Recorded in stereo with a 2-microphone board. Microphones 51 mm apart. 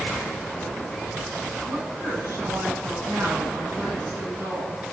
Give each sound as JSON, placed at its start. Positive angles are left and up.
{"t": 1.7, "sound": "a woman speaking", "side_deg": -65, "distance_m": 8.5}